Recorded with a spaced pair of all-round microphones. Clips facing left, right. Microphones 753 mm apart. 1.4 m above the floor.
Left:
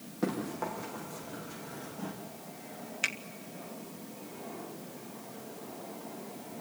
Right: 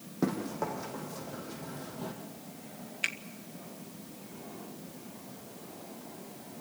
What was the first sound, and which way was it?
Running footsteps, 75° right (ahead or behind).